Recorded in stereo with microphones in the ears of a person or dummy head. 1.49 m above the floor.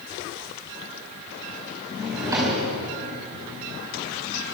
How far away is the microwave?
I don't hear a microwave.